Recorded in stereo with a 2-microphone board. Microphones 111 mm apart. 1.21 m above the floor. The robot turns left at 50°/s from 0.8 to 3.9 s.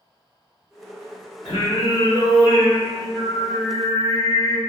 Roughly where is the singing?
Left.